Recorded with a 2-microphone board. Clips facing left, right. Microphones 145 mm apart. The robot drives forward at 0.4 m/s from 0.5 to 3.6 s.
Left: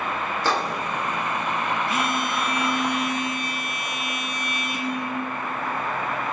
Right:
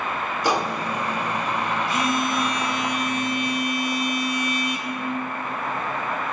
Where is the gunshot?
15° right (ahead or behind), 0.7 m.